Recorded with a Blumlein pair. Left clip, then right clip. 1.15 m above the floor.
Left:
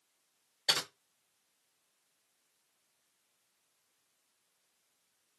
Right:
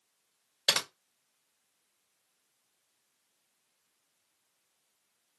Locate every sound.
0.7 s typing on a keyboard: 55° right, 0.9 m